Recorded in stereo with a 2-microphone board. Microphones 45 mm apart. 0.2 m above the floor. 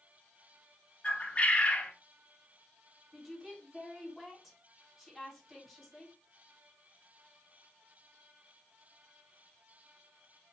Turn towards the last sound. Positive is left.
turn(degrees=0)  # may be behind; listen again after turning